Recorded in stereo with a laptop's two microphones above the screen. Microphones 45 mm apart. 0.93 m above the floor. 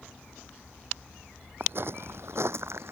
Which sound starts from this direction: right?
Footsteps, at 1.6 s.